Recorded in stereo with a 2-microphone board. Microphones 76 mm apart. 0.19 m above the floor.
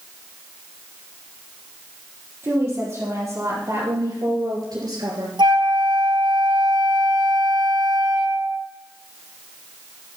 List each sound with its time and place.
2.4 s a woman speaking: 35° right (ahead or behind), 4.5 m; by 5.3 s 60° right (ahead or behind), 3 m
5.4 s a flute: 80° right, 0.9 m